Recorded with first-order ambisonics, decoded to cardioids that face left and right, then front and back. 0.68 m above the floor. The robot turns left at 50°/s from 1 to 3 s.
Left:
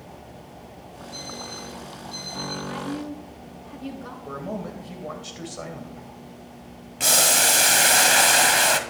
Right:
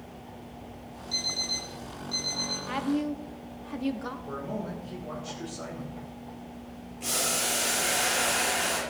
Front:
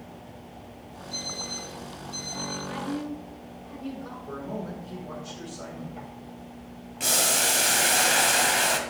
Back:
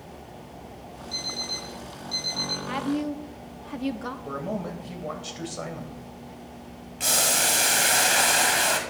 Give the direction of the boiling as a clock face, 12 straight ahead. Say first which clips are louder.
Left 10 dB, back 1 dB; 9 o'clock.